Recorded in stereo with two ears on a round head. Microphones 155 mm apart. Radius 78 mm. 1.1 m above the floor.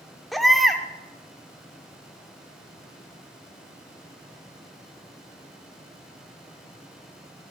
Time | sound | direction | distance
0.3 | a baby crying | centre (ahead or behind) | 0.8 m